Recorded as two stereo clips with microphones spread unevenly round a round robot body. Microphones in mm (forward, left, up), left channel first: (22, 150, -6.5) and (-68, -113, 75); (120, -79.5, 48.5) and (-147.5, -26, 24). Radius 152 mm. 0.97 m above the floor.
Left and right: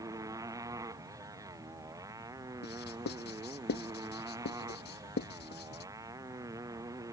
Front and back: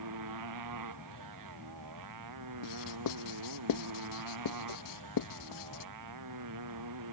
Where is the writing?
15° left.